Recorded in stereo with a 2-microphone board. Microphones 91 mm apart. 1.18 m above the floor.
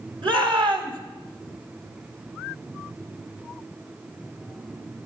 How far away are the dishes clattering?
No dishes clattering in this recording.